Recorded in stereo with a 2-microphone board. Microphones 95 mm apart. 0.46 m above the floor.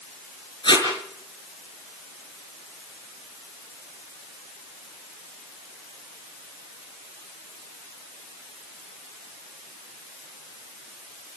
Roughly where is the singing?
No singing in this recording.